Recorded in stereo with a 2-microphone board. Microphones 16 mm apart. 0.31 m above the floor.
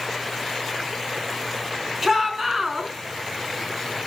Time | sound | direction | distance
2.0 | a shout | 20° right (ahead or behind) | 4 m